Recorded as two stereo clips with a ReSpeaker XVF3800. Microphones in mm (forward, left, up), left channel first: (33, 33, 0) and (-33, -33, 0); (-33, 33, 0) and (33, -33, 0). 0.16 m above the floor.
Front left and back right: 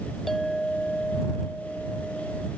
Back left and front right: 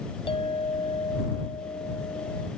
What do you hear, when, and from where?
0.3 s a clink: 135° left